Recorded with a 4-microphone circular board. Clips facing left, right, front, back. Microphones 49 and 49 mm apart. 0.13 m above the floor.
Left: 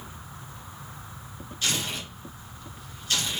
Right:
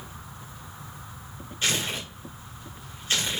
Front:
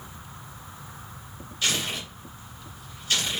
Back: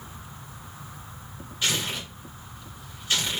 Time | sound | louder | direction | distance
1.6 | tearing paper | right 2 dB, even | 130° right | 2 m